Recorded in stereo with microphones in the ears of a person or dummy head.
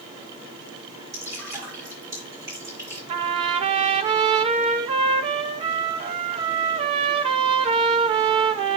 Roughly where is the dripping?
Centre.